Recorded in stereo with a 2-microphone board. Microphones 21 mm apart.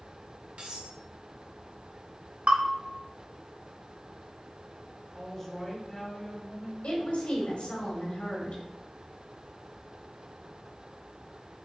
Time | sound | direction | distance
0.6 | cutlery clinking | 80° right | 2 m
2.5 | a bell | 75° right (ahead or behind) | 1.2 m
5.2 | a woman speaking | 15° left (ahead or behind) | 2 m
6.8 | a woman speaking | 65° left (ahead or behind) | 2.5 m